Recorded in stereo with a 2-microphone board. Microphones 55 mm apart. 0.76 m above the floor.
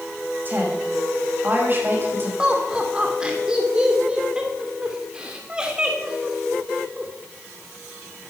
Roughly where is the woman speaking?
Right.